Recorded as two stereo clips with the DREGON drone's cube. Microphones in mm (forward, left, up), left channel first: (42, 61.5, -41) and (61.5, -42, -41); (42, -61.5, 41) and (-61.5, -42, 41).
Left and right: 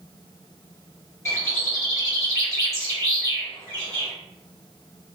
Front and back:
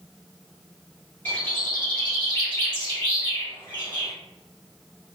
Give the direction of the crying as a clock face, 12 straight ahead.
I don't hear crying.